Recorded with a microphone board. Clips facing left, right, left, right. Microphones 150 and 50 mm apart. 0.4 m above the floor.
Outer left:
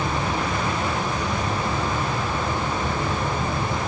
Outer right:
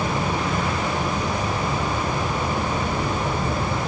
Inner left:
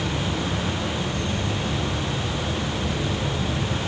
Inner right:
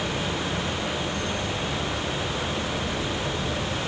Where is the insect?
20° left (ahead or behind), 4 m.